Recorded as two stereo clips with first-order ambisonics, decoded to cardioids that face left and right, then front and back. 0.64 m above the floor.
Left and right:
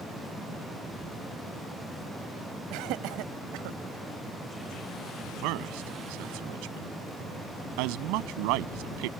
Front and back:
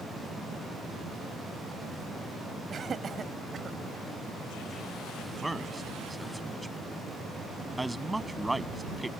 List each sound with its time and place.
2.7 s laughter: 115° right; by 3.8 s 110° right
5.4 s a man speaking: 95° right